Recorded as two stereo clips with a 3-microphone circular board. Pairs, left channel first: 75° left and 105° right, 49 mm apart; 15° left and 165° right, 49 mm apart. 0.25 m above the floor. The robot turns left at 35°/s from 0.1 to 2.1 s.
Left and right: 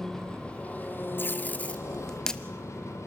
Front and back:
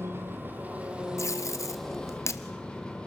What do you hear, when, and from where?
0.0 s an engine running: 155° left, 3 m; by 3.1 s 85° left, 3 m
1.2 s tape being pulled: 30° left, 1.1 m; by 2.4 s 5° right, 1.1 m